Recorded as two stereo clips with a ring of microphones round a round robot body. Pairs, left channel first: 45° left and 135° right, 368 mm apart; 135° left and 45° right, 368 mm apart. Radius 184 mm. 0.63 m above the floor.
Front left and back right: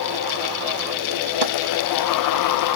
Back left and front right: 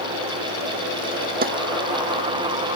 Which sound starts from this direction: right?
A snare drum, at 1.4 s.